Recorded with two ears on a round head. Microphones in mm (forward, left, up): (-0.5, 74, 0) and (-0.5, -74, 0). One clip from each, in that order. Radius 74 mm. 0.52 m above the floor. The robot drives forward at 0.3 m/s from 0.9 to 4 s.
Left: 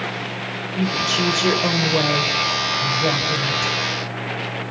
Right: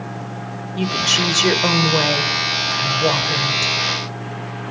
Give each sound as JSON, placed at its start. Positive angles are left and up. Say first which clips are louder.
{"t": 0.8, "sound": "a woman speaking", "louder": "right 3 dB", "side_deg": -40, "distance_m": 2.0}